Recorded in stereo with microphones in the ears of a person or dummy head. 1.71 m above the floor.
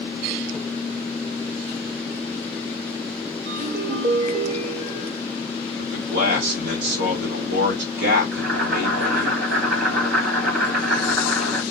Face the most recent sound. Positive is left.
turn(degrees=-70)  # may be behind; listen again after turning